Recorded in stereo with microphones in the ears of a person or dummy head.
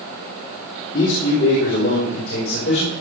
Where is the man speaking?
45° left (ahead or behind), 3 m; by 2.9 s 50° left (ahead or behind), 5 m.